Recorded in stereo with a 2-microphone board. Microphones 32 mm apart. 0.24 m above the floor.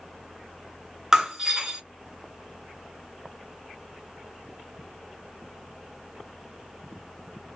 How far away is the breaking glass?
About 1.4 m.